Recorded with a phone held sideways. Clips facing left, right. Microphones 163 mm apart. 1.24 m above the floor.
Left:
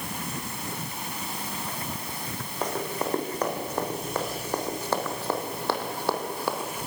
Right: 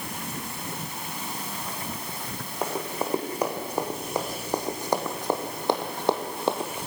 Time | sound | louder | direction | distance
2.6 | running footsteps | even | 10° right (ahead or behind) | 4 m